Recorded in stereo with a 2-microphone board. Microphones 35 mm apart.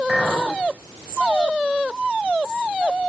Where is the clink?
15° right (ahead or behind), 3.5 m.